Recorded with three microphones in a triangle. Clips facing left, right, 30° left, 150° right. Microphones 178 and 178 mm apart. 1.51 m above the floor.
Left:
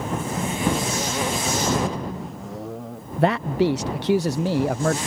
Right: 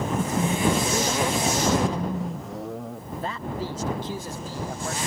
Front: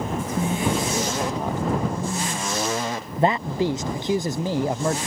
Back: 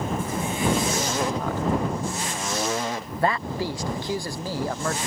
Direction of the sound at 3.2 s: 95° left.